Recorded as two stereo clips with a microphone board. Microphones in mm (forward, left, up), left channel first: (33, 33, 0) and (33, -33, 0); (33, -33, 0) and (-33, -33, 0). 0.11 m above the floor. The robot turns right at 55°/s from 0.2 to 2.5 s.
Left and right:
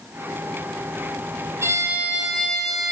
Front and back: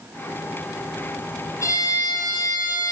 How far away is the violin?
About 0.7 m.